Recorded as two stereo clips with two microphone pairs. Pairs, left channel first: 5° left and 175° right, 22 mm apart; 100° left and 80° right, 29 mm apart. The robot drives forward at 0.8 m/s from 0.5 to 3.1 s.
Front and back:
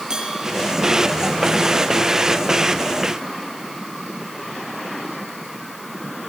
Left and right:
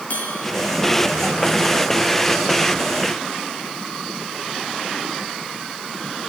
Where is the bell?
130° left, 6.5 m.